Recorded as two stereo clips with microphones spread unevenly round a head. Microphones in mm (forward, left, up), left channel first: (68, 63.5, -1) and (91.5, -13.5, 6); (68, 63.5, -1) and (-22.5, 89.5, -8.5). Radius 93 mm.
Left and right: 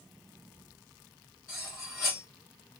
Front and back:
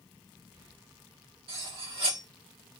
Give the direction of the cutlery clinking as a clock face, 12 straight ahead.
6 o'clock.